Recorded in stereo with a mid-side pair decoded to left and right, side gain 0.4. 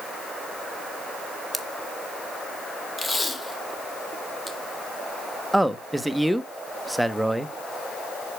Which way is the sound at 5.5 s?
5° right.